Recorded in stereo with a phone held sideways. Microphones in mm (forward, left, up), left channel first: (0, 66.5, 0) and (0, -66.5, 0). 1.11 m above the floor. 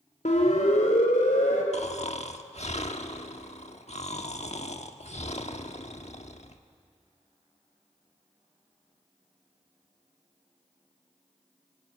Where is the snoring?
60° left (ahead or behind), 1.3 m.